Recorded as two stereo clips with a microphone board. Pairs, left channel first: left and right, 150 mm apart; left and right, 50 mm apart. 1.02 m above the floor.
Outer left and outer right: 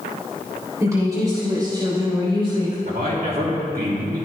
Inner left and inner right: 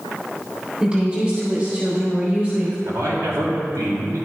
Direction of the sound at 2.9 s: 75° right (ahead or behind).